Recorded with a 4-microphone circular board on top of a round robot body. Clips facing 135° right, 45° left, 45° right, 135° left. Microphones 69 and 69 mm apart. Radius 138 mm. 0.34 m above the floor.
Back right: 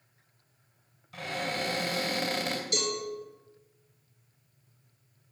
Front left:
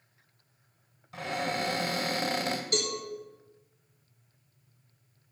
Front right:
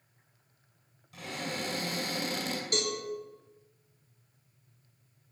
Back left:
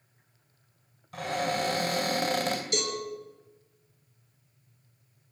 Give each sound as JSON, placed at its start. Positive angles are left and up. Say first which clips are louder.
{"t": 1.1, "sound": "a cupboard door", "louder": "front left 2 dB, back left 8 dB", "azimuth_deg": 105, "distance_m": 2.5}
{"t": 2.7, "sound": "a cowbell", "louder": "even, back left 1 dB", "azimuth_deg": -5, "distance_m": 3.5}